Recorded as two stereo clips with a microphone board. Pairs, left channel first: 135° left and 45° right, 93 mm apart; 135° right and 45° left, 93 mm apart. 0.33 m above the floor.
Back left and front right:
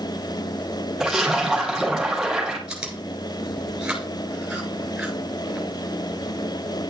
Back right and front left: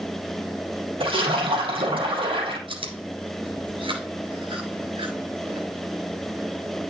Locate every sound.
1.0 s a splash: 40° left, 4 m
2.7 s chewing: 35° left, 2.5 m